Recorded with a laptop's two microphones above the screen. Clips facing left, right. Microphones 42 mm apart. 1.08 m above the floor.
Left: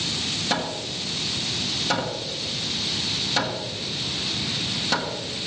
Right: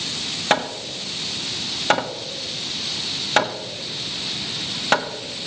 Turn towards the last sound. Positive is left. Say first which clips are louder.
# right 9 dB
turn(degrees=-50)  # may be behind; listen again after turning